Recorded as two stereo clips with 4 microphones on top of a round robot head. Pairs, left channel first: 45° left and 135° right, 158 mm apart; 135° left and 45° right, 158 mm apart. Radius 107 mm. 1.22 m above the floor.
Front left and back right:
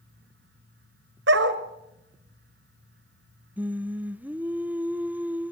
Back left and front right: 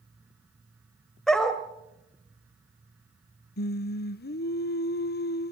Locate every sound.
1.3 s a dog barking: 140° right, 1.7 m
3.6 s singing: 145° left, 0.8 m